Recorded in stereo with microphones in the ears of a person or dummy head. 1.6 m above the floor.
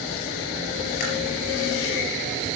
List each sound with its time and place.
1.0 s chewing: 50° left (ahead or behind), 4.5 m